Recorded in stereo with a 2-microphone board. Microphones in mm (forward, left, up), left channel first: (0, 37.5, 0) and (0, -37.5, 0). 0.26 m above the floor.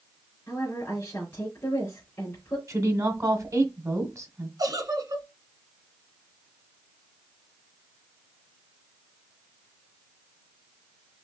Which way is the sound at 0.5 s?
25° left (ahead or behind).